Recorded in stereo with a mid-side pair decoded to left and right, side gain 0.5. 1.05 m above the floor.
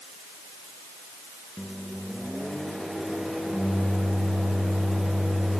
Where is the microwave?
Straight ahead, 0.5 m.